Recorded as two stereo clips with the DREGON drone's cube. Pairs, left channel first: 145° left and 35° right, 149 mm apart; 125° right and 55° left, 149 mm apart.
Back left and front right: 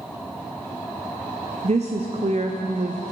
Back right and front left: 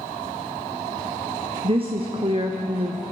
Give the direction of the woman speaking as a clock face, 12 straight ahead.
12 o'clock.